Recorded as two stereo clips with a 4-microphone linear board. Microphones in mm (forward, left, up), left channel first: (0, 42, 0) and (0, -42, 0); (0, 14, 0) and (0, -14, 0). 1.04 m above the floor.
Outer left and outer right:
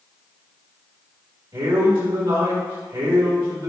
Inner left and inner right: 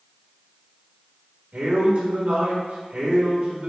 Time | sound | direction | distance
1.5 | a man speaking | 70° right (ahead or behind) | 1.8 m